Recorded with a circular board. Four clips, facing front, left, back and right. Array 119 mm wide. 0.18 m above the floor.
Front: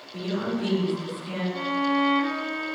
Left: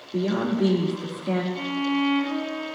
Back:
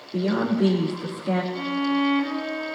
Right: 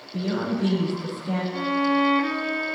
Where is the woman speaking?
145° left, 5 m.